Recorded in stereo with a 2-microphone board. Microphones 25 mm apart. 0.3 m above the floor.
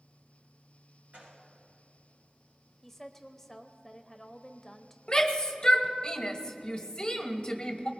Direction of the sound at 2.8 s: 10° left (ahead or behind).